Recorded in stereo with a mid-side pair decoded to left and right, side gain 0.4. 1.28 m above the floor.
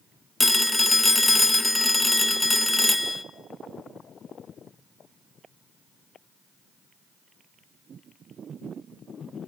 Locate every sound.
0.4 s a phone ringing: 20° left, 0.9 m